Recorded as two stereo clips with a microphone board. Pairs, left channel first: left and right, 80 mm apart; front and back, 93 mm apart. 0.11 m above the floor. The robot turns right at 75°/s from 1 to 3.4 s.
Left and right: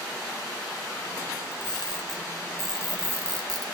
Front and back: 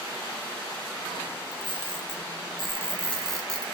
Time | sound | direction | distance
1.5 | a camera shutter | 95° left | 1.2 m